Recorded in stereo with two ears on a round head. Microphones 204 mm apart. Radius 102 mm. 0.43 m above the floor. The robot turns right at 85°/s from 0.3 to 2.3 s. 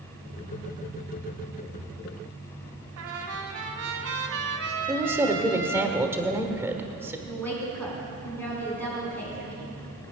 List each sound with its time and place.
3.0 s a trumpet: 75° right (ahead or behind), 2 m
4.9 s a woman speaking: 10° right (ahead or behind), 1.2 m
7.3 s a woman speaking: 10° left (ahead or behind), 4.5 m